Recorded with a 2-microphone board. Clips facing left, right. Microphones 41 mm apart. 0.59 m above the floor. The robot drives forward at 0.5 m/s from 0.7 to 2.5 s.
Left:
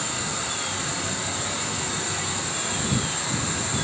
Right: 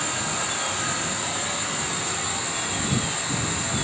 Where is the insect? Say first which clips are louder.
Right 2 dB; 60° right (ahead or behind), 0.8 m; by 3.9 s 30° right (ahead or behind), 1.5 m.